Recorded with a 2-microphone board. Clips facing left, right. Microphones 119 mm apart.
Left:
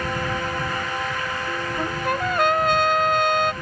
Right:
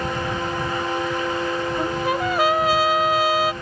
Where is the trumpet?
5° right (ahead or behind).